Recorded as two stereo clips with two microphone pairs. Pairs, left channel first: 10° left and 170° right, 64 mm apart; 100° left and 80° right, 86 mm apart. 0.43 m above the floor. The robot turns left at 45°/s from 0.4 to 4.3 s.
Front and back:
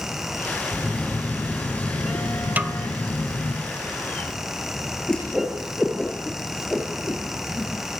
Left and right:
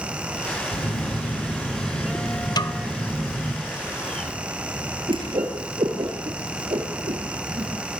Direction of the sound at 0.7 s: 105° left.